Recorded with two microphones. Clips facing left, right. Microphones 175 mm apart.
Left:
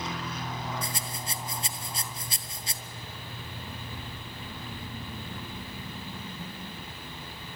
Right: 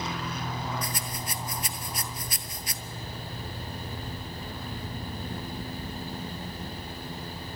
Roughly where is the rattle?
Left.